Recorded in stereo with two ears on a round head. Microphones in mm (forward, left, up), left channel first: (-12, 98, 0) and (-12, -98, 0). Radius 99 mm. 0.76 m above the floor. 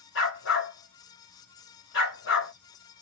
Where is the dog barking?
55° left (ahead or behind), 2 m.